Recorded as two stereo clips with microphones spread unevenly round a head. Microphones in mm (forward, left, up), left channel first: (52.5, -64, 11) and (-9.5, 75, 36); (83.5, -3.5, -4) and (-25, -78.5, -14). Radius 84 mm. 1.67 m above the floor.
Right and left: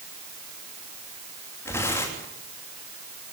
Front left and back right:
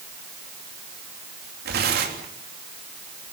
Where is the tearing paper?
145° right, 3.5 m.